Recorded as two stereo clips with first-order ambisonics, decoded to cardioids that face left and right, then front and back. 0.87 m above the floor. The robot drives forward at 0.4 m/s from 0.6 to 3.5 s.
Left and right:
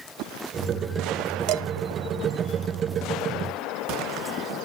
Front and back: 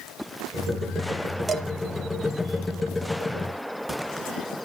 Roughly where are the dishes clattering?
Right.